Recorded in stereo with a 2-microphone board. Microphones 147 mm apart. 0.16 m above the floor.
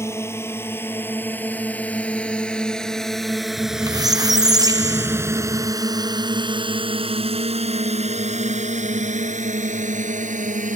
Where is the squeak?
25° right (ahead or behind).